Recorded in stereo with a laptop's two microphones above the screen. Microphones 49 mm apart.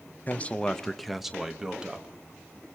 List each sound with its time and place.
0.3 s a man speaking: 35° left (ahead or behind), 0.5 m; by 2.2 s 20° right (ahead or behind), 1.4 m